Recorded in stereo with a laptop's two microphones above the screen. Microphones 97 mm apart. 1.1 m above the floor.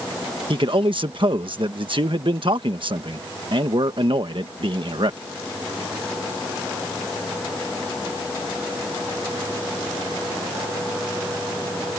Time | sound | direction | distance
0.5 | a man speaking | 60° right (ahead or behind) | ?